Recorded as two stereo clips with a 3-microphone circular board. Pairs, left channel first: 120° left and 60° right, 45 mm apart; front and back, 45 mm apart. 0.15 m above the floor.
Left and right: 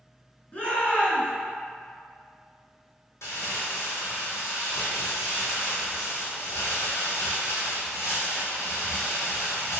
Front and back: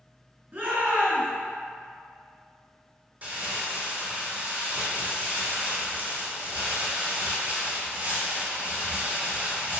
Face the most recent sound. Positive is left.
turn(degrees=125)